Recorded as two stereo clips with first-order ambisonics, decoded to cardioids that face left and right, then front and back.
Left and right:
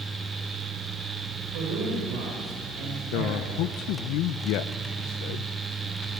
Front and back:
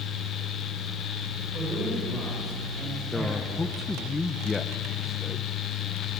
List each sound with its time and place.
1.5 s a man speaking: 105° right, 6 m
3.1 s a man speaking: 75° left, 0.7 m